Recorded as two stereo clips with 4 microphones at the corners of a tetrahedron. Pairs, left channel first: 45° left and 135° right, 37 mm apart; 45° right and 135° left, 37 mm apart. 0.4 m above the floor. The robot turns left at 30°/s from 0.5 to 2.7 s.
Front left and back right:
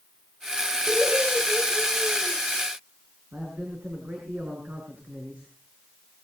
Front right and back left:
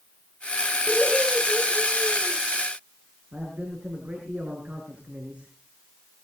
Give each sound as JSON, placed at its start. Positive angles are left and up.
{"t": 0.9, "sound": "laughter", "azimuth_deg": -95, "distance_m": 9.5}
{"t": 3.3, "sound": "a man speaking", "azimuth_deg": -175, "distance_m": 6.0}